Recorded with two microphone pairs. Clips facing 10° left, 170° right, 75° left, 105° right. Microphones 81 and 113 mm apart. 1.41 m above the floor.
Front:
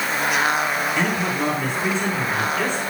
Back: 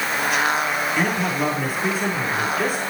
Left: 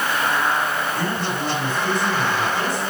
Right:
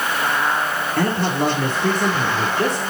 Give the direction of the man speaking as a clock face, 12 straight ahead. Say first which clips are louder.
Even, right 5 dB; 3 o'clock.